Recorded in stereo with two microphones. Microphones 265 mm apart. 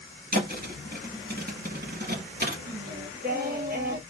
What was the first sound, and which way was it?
A thud, 35° right (ahead or behind).